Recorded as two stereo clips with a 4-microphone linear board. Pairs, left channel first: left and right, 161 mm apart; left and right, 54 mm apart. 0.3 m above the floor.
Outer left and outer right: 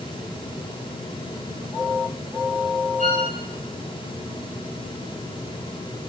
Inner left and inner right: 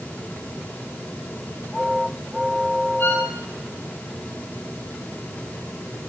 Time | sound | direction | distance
3.0 | a violin | 50° left (ahead or behind) | 9 m